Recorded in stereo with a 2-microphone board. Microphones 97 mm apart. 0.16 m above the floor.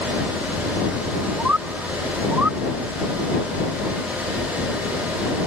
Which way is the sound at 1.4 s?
15° right (ahead or behind).